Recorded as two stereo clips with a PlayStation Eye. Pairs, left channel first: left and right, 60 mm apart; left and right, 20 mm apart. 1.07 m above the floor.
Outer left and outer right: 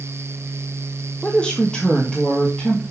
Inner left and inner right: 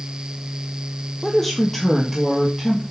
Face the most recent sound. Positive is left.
turn(degrees=10)  # may be behind; listen again after turning